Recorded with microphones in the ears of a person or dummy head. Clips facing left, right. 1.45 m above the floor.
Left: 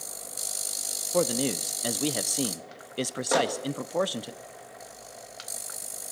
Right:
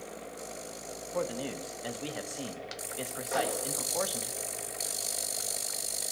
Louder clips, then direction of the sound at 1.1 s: Left 8 dB; 55° left (ahead or behind).